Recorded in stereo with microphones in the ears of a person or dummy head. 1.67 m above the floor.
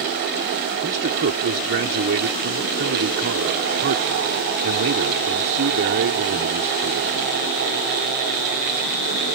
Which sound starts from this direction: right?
A man speaking, at 0.8 s.